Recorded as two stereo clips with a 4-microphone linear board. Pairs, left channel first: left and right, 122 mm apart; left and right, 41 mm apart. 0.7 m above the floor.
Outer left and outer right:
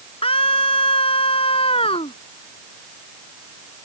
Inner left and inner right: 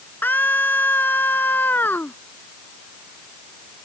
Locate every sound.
0.2 s a scream: 50° left (ahead or behind)